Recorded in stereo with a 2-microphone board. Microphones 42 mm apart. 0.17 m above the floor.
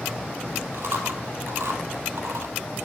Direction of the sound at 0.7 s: 70° right (ahead or behind).